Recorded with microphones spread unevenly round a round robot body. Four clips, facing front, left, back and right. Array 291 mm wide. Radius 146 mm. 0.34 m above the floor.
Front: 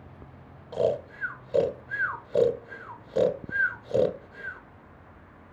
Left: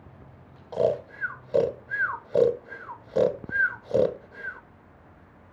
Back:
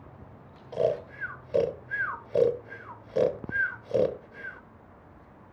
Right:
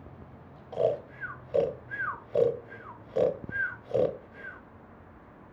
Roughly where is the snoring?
Left.